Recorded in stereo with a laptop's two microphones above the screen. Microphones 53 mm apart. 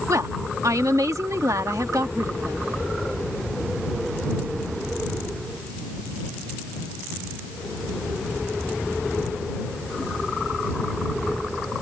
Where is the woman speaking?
80° right.